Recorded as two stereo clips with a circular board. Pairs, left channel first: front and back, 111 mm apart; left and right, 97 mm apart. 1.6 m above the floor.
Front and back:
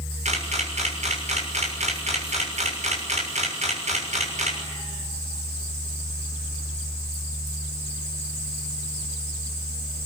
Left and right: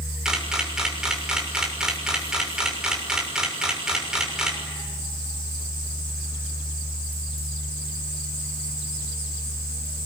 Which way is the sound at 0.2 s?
175° right.